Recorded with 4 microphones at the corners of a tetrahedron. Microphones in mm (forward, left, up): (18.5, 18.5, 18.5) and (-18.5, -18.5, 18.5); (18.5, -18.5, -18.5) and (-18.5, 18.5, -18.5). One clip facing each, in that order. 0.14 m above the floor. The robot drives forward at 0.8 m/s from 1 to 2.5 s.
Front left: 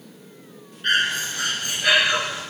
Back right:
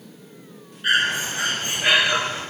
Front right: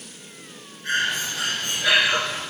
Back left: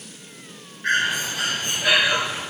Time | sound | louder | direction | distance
0.8 | breathing | back right 1 dB, back left 3 dB | 145° left | 0.7 m